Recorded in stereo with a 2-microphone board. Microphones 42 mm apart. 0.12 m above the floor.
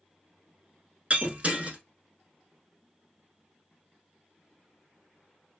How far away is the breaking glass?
About 0.8 m.